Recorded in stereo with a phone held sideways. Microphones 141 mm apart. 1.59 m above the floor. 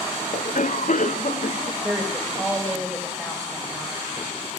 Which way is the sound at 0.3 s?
65° left (ahead or behind).